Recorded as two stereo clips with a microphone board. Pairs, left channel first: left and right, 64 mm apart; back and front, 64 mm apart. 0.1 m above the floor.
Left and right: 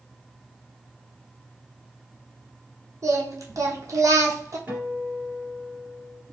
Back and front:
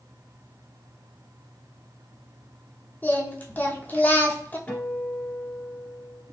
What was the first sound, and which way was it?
Singing, 115° right.